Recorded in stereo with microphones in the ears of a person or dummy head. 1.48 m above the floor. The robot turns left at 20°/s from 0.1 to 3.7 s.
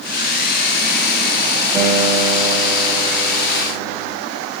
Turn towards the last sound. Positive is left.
turn(degrees=160)